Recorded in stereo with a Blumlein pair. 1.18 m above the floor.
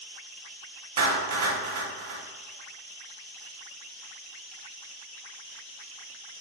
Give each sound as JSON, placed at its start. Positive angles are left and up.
{"t": 1.0, "sound": "a clap", "azimuth_deg": -55, "distance_m": 1.4}